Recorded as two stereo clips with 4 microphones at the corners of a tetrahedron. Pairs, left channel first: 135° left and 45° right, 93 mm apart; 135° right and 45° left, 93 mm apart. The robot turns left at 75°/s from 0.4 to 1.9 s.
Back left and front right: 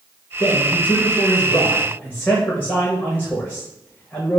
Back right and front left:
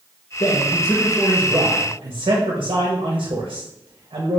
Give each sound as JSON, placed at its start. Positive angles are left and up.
{"t": 0.4, "sound": "a man speaking", "azimuth_deg": 175, "distance_m": 0.7}